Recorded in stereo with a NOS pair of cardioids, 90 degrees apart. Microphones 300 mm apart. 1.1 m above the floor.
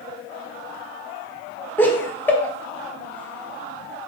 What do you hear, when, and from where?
1.8 s laughter: 5° left, 0.7 m